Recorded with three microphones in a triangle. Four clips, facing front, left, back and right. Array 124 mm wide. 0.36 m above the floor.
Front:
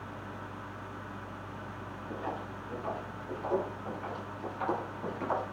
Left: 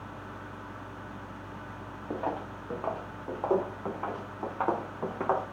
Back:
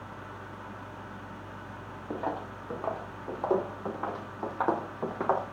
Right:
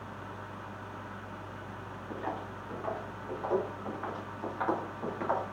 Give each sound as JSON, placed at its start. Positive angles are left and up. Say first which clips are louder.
{"t": 2.1, "sound": "footsteps", "louder": "left 4 dB, back 5 dB", "azimuth_deg": 130, "distance_m": 3.0}